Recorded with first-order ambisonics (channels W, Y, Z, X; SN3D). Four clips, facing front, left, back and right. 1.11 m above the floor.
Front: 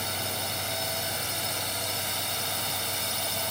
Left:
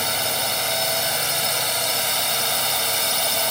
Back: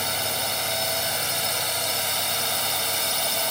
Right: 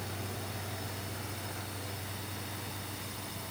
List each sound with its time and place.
0.0 s a drone: 110° left